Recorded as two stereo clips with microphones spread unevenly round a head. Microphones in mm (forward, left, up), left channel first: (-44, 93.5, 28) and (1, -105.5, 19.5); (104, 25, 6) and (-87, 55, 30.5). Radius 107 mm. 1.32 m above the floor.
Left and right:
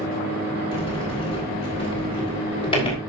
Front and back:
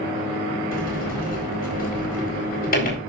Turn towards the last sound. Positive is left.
turn(degrees=35)